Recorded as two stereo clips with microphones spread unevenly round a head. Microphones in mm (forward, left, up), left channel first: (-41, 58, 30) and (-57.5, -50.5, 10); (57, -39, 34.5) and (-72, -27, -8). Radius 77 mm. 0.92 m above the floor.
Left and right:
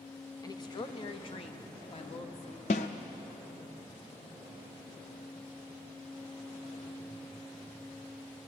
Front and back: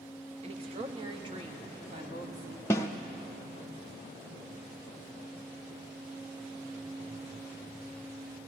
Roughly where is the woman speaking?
Behind left.